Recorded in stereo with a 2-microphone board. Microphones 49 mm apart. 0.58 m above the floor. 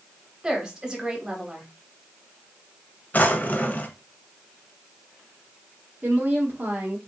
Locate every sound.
0.4 s a woman speaking: 10° right (ahead or behind), 1.1 m
3.1 s a drawer: 30° left (ahead or behind), 0.5 m
6.0 s a woman speaking: 35° right (ahead or behind), 0.9 m